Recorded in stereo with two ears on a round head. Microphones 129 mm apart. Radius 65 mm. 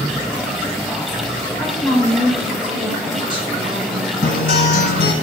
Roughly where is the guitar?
Left.